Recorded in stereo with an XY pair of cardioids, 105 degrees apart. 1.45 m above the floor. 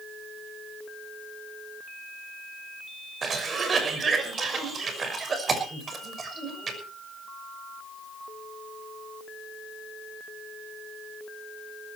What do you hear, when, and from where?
3.2 s a cough: 40° right, 6 m